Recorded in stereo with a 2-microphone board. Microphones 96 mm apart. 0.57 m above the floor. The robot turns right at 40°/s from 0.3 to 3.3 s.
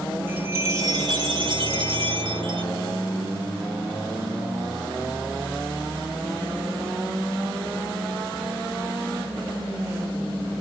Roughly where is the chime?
Behind.